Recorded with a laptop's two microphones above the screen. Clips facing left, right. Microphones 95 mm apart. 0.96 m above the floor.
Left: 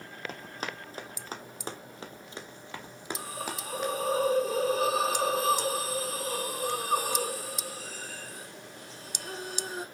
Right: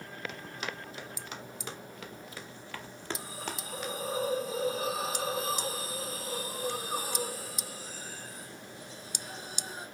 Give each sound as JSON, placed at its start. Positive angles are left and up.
{"t": 0.3, "sound": "running footsteps", "side_deg": 40, "distance_m": 1.7}
{"t": 3.2, "sound": "a hiss", "side_deg": 75, "distance_m": 3.0}